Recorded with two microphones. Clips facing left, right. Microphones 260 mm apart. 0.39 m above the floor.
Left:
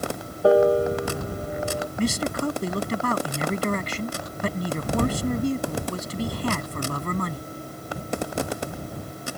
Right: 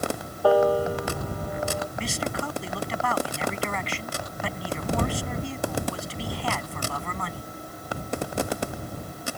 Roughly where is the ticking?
No ticking in this recording.